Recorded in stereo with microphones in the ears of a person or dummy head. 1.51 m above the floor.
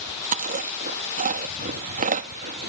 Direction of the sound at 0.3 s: 45° right (ahead or behind).